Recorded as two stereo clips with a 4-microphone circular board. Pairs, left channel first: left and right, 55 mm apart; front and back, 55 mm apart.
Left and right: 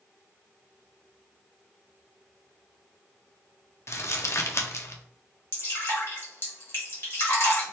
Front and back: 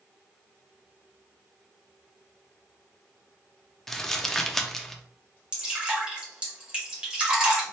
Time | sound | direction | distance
3.9 | crumpling | 80° left | 0.5 m
5.5 | dripping | 110° left | 1.7 m